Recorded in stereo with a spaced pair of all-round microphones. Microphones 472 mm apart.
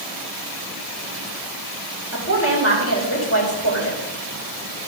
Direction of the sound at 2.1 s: 30° left (ahead or behind).